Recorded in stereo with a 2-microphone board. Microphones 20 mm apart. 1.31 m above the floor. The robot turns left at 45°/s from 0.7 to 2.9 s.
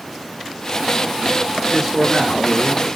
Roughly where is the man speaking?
Behind.